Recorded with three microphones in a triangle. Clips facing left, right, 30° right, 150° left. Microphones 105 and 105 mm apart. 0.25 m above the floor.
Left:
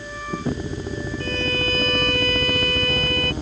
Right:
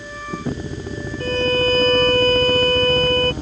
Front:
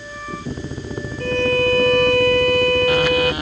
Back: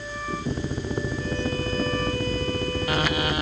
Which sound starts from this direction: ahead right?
A violin, at 1.2 s.